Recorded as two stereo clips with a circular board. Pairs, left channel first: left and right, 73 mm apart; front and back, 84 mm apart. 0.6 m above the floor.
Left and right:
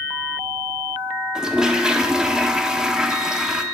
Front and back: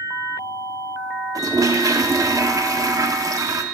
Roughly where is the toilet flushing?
Behind.